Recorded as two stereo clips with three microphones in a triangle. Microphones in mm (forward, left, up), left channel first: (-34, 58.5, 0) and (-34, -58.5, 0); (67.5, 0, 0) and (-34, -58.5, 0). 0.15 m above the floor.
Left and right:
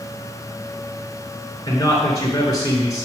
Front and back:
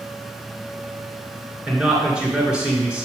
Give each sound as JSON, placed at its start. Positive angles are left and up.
{"t": 1.7, "sound": "a man speaking", "azimuth_deg": 135, "distance_m": 2.5}